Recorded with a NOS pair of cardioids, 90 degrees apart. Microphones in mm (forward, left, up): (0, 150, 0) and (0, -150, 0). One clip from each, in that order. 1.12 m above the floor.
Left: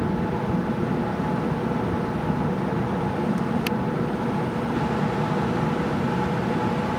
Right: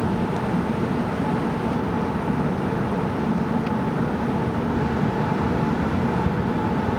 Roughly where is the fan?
Ahead.